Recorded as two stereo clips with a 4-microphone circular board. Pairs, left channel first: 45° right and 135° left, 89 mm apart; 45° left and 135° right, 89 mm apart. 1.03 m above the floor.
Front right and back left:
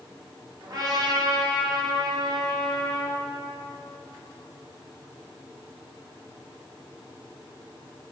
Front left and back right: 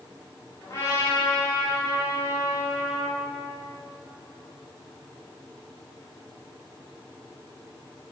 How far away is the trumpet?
About 3.5 m.